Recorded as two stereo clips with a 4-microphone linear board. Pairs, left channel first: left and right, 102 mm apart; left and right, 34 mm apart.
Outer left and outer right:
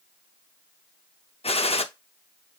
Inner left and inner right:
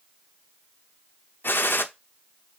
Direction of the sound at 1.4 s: 70° left (ahead or behind).